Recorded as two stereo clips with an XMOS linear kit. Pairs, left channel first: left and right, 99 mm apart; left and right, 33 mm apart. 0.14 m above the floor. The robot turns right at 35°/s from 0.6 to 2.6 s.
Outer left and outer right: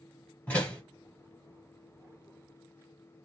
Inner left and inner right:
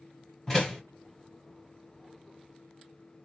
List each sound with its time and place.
0.5 s a door slam: 15° left (ahead or behind), 1.9 m; by 0.8 s 10° left (ahead or behind), 1.9 m